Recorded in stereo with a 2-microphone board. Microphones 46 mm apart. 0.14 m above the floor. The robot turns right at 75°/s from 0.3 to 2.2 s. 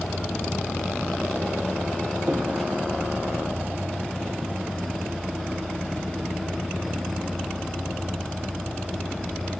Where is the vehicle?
85° left; by 9.6 s 135° right.